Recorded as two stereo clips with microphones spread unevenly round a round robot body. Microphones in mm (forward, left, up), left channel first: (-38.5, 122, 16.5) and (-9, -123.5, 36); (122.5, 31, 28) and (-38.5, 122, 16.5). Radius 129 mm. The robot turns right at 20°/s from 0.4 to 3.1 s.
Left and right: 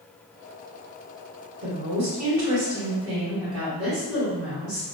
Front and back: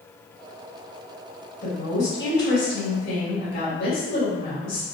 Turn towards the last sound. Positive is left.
turn(degrees=-50)